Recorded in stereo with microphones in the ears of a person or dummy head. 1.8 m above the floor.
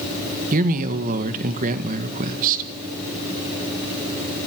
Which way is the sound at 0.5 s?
45° right (ahead or behind).